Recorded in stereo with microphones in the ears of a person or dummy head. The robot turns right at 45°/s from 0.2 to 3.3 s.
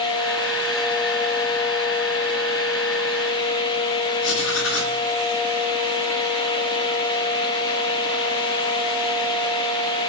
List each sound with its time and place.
4.2 s writing: 70° left (ahead or behind), 5.5 m